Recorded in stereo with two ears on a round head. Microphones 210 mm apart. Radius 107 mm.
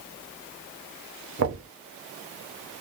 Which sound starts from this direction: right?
Knocking, at 1.4 s.